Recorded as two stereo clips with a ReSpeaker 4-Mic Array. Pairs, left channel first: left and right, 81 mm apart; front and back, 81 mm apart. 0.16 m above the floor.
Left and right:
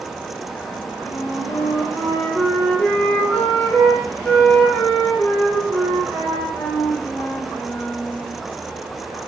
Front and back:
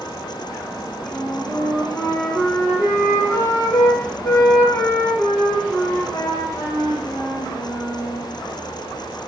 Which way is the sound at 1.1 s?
40° left.